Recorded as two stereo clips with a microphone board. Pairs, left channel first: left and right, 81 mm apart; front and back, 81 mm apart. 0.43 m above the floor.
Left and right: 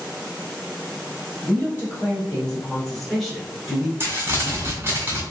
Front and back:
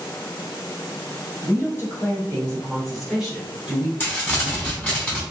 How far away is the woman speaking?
About 1.6 m.